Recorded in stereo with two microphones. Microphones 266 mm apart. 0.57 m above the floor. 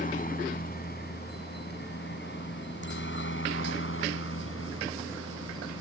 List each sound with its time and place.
0.0 s a helicopter: 30° left (ahead or behind); by 5.8 s 55° left (ahead or behind)